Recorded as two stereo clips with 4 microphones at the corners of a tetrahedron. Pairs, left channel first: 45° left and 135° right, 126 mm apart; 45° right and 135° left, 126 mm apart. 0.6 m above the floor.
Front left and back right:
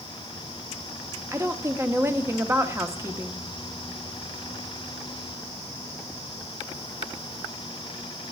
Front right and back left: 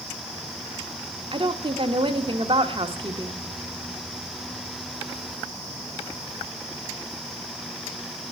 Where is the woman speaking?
165° left, 1.2 m.